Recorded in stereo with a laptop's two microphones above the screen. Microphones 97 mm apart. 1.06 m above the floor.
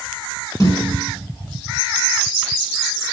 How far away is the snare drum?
About 7 m.